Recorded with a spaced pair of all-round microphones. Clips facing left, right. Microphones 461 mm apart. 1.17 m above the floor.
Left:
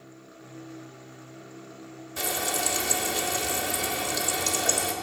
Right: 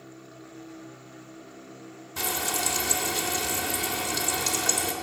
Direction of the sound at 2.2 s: 15° right (ahead or behind).